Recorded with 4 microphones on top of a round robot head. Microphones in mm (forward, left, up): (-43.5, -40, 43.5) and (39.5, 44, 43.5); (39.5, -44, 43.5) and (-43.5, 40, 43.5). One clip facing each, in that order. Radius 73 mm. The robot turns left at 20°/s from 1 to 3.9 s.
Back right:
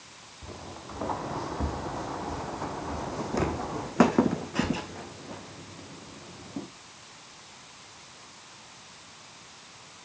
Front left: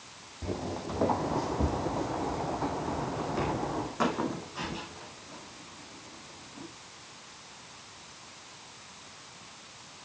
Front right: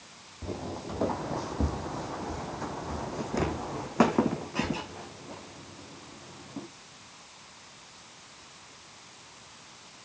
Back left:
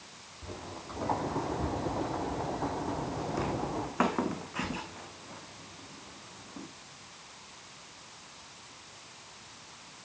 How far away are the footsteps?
About 2.5 m.